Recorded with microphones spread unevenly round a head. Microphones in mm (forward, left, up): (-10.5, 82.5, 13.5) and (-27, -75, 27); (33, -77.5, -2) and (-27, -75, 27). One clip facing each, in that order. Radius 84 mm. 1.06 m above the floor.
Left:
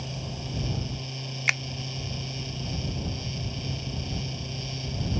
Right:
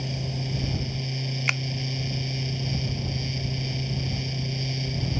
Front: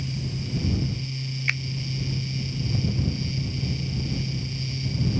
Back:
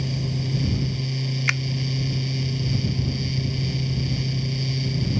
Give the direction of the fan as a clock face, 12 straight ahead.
6 o'clock.